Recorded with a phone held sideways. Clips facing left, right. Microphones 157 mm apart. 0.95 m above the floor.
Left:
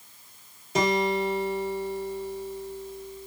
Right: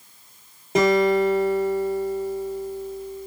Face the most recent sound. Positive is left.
turn(degrees=-55)  # may be behind; listen again after turning